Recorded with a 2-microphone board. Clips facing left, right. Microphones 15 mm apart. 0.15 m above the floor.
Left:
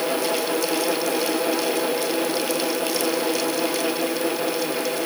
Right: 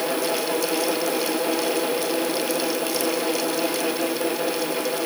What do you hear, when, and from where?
Only background noise.